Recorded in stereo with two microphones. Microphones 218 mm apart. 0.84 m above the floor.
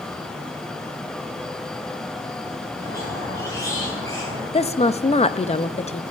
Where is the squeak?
15° left (ahead or behind), 7.5 m.